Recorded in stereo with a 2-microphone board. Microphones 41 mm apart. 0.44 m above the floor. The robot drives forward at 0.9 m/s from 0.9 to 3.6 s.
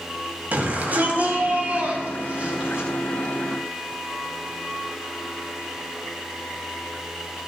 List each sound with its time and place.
0.5 s a shout: 45° right (ahead or behind), 3 m; by 2.9 s 30° right (ahead or behind), 4.5 m